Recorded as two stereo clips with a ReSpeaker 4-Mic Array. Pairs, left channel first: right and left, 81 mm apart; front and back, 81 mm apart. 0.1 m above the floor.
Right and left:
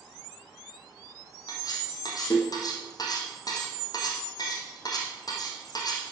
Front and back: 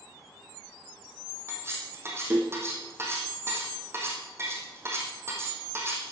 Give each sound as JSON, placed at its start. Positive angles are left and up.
{"t": 1.5, "sound": "cutlery clinking", "azimuth_deg": -120, "distance_m": 3.0}